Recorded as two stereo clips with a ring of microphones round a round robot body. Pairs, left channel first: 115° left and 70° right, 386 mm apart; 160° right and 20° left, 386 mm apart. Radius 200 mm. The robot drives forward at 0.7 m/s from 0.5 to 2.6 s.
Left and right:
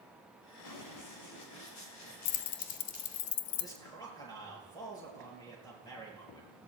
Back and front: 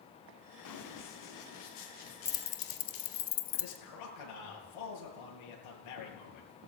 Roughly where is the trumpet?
No trumpet in this recording.